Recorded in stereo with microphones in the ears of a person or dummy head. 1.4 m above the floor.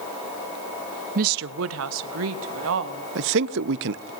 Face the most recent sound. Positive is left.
turn(degrees=-60)  # may be behind; listen again after turning